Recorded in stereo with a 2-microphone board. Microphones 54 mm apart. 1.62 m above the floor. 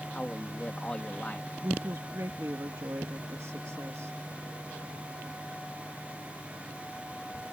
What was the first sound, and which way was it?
A man speaking, 25° left (ahead or behind).